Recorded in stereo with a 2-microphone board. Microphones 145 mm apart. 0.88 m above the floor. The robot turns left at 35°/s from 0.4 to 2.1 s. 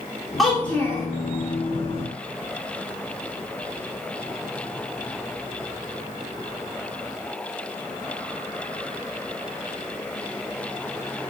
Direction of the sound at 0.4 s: Centre (ahead or behind).